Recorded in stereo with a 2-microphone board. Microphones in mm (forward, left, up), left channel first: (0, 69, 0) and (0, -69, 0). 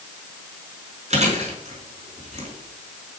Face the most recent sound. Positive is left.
turn(degrees=-55)  # may be behind; listen again after turning